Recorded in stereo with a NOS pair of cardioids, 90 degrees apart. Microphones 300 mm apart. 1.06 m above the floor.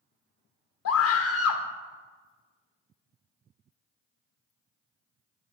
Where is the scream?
55° left, 0.9 m.